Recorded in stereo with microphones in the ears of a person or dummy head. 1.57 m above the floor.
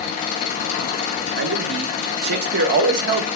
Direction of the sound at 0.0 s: 45° left (ahead or behind).